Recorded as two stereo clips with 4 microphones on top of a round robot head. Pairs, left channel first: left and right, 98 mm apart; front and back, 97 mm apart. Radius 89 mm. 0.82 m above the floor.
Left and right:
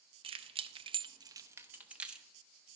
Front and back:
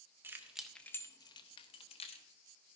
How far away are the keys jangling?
About 0.8 m.